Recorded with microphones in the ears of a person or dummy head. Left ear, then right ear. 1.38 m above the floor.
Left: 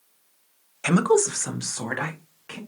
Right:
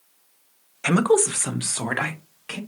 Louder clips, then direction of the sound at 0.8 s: Right 1 dB; 5° left (ahead or behind).